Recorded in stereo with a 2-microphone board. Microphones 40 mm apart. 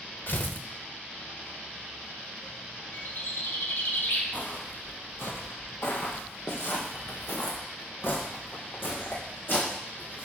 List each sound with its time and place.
0.3 s tearing paper: 50° left (ahead or behind), 1.1 m
2.9 s a bird: 65° left (ahead or behind), 1.9 m
4.3 s footsteps: 45° left (ahead or behind), 1.9 m; by 10.3 s 55° left (ahead or behind), 4.5 m